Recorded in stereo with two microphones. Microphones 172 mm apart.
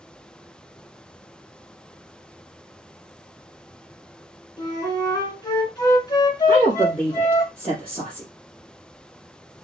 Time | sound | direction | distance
4.6 | a flute | 20° left (ahead or behind) | 1.2 m
6.5 | a woman speaking | 5° right (ahead or behind) | 2.5 m